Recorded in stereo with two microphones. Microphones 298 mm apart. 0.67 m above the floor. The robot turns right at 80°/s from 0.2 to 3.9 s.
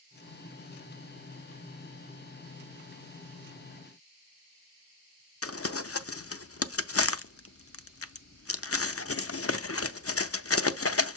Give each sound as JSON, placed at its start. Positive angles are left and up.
{"t": 5.4, "sound": "crumpling", "side_deg": 50, "distance_m": 0.5}